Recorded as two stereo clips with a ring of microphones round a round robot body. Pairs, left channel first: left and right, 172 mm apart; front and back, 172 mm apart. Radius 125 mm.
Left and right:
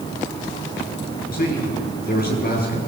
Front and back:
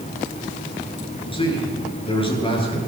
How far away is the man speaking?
About 10 m.